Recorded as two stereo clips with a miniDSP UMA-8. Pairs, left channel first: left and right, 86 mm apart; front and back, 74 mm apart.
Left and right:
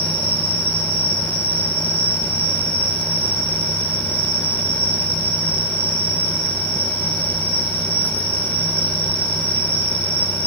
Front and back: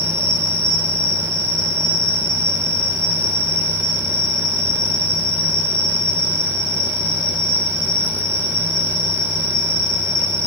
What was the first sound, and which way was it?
An insect, 65° right.